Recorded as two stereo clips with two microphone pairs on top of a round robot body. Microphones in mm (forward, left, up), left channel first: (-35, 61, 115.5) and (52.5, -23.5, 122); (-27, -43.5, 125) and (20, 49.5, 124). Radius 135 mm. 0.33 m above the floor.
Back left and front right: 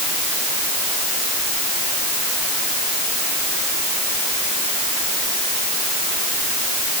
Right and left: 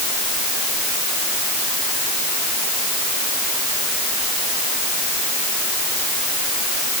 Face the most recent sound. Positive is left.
No sound to turn to.